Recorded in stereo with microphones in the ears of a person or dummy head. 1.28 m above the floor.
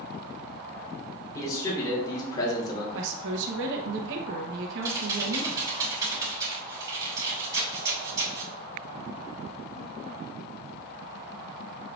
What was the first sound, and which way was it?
A man speaking, 20° left (ahead or behind).